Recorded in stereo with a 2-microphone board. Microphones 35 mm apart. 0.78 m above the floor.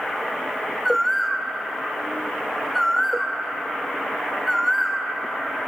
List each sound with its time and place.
0.8 s a bird: centre (ahead or behind), 2 m